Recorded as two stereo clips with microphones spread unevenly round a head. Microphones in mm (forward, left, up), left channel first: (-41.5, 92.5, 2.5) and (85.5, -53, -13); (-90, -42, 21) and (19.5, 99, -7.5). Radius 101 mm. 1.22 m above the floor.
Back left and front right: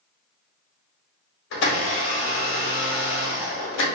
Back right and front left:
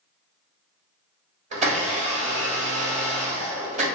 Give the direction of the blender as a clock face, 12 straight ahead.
8 o'clock.